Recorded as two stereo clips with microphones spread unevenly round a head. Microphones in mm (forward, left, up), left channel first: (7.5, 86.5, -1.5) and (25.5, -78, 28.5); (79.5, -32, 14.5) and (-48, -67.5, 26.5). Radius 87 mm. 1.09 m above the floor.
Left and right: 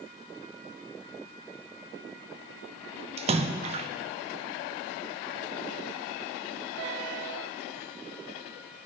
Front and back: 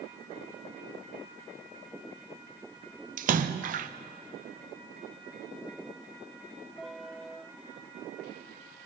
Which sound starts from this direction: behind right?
A splash, at 3.2 s.